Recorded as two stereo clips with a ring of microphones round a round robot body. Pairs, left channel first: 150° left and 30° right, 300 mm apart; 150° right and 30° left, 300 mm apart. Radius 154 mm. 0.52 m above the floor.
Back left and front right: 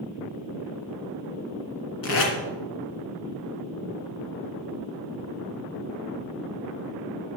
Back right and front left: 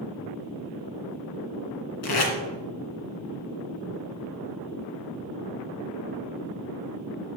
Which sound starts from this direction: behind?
Tape being pulled, at 2.0 s.